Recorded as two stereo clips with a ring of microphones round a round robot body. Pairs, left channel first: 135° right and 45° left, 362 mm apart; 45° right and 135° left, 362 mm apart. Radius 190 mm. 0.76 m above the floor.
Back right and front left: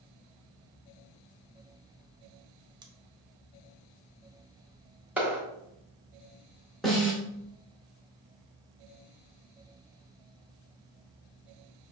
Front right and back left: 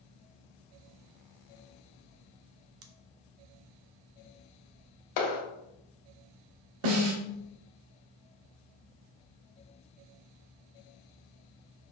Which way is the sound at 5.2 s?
40° right.